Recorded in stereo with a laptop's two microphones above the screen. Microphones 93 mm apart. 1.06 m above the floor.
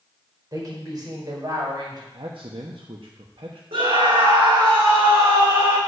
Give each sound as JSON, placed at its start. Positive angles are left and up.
{"t": 0.5, "sound": "a woman speaking", "side_deg": -45, "distance_m": 4.0}
{"t": 2.1, "sound": "a man speaking", "side_deg": -70, "distance_m": 1.0}
{"t": 3.7, "sound": "a scream", "side_deg": -80, "distance_m": 2.0}